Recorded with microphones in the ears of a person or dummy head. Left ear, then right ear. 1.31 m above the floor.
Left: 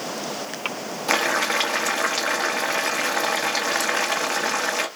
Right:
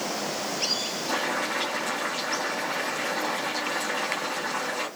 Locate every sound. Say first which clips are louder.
1.1 s boiling: left 8 dB; 60° left (ahead or behind), 1.2 m